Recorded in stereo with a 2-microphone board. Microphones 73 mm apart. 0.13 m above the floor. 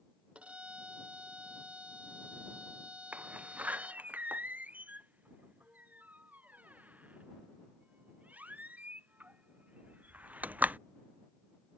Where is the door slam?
20° right (ahead or behind).